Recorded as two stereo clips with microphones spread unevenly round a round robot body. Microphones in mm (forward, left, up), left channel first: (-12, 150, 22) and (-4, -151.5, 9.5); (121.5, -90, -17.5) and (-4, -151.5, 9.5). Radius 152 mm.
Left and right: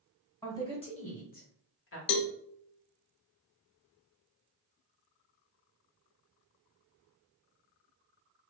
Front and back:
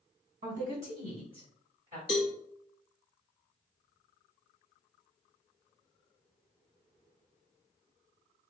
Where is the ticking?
I don't hear ticking.